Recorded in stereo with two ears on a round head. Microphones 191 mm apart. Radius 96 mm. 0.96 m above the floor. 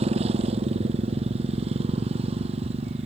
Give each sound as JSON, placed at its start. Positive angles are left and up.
{"t": 0.0, "sound": "a motorcycle", "side_deg": -30}